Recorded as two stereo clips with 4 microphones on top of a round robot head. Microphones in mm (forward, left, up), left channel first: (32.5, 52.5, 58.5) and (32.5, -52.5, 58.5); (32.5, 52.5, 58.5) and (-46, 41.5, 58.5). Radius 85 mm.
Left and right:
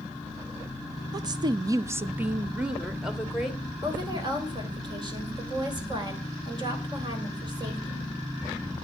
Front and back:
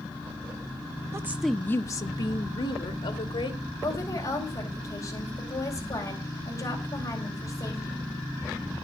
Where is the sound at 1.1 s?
130° right, 0.7 m; by 3.7 s 5° right, 2.5 m.